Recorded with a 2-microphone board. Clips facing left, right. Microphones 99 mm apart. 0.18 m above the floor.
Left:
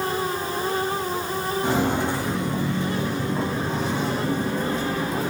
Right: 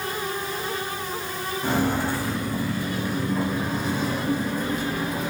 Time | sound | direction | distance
1.6 | footsteps | 15° left (ahead or behind) | 3.5 m